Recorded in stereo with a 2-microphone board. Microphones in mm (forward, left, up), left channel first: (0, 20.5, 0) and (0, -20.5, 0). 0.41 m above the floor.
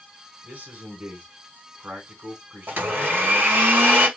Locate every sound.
0.4 s a man speaking: 45° right (ahead or behind), 3.5 m
2.7 s a blender: 55° right (ahead or behind), 2 m